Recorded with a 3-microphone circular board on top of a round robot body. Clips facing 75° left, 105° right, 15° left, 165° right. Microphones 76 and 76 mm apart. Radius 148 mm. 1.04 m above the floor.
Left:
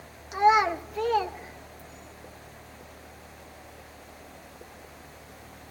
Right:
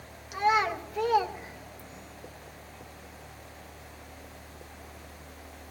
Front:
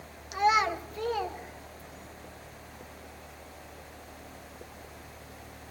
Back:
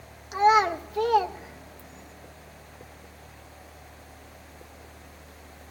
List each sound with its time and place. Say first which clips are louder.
0.3 s a child speaking: left 5 dB, back 5 dB; 140° left, 1.0 m; by 2.1 s 145° right, 1.1 m